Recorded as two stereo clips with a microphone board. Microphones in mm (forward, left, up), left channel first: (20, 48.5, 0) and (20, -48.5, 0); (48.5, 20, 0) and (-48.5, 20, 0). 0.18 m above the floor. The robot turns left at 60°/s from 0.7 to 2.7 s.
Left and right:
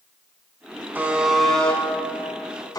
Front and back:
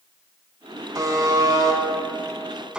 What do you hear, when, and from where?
0.9 s a buzzer: 150° right, 0.6 m; by 2.8 s 105° left, 0.6 m